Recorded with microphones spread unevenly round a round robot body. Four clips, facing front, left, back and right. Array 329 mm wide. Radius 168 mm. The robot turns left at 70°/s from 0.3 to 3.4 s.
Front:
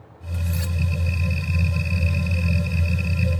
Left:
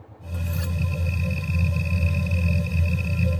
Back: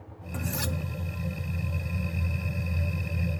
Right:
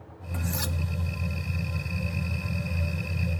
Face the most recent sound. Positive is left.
turn(degrees=10)